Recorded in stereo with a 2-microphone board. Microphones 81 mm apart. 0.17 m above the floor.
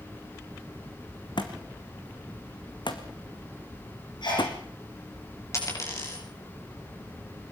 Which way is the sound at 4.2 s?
65° left (ahead or behind).